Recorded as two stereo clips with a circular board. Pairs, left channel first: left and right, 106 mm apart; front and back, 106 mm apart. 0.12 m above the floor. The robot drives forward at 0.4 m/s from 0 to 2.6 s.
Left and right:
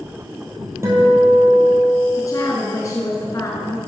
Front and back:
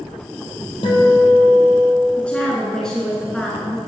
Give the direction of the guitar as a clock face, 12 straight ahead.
1 o'clock.